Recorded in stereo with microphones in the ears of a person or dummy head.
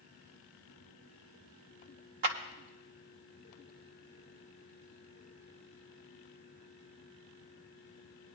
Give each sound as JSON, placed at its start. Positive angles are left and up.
{"t": 2.2, "sound": "a clap", "side_deg": -45, "distance_m": 0.8}